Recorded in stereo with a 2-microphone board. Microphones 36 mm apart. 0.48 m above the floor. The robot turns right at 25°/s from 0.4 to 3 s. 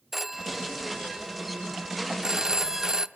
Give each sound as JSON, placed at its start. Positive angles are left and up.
{"t": 0.1, "sound": "a phone ringing", "side_deg": -5, "distance_m": 0.6}